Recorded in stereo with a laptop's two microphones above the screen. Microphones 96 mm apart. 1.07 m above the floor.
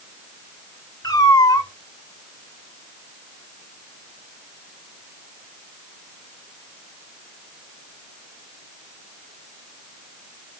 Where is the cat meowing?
40° left (ahead or behind), 2.5 m.